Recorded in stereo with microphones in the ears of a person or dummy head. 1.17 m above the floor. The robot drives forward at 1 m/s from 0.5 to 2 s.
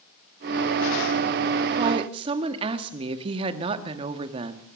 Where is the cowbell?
No cowbell in this recording.